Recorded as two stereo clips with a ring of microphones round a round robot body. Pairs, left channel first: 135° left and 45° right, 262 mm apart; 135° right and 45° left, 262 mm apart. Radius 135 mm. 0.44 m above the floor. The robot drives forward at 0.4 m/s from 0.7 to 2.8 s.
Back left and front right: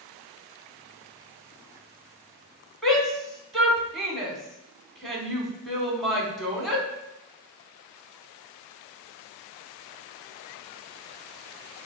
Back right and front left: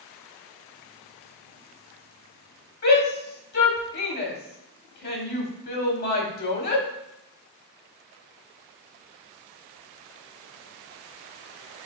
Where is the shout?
135° right, 1.2 m.